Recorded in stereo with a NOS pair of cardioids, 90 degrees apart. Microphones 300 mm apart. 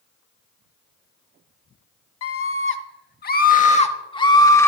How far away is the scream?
About 1.7 m.